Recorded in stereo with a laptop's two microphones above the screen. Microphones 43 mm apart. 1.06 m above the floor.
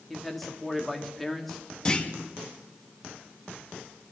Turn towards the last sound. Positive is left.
turn(degrees=20)  # may be behind; listen again after turning